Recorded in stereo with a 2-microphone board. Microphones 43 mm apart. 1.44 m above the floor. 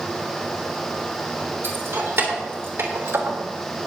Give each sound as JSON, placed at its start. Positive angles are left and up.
{"t": 1.6, "sound": "keys jangling", "side_deg": -65, "distance_m": 3.0}